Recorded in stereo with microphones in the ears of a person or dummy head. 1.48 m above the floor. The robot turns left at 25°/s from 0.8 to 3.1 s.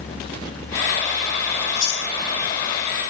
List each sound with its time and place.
1.6 s chewing: 65° left (ahead or behind), 2 m; by 2.1 s 75° left (ahead or behind), 2 m